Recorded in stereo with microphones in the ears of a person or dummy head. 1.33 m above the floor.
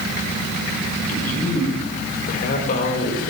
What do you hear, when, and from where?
1.1 s a man speaking: 50° left (ahead or behind), 4 m